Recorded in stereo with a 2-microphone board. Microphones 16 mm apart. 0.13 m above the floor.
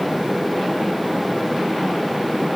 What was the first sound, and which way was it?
Only background noise.